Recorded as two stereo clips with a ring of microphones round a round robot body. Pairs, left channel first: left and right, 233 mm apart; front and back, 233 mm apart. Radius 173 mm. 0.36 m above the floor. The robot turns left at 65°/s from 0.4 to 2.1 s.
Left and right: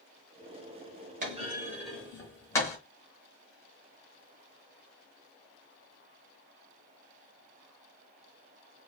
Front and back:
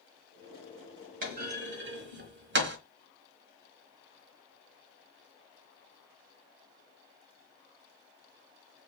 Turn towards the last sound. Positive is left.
turn(degrees=165)